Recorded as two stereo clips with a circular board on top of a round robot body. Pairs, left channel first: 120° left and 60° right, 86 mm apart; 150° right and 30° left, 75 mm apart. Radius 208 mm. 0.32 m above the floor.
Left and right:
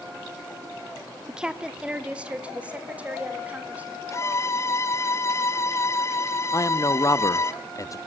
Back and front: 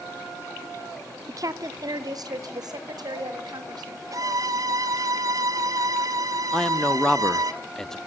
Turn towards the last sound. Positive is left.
turn(degrees=130)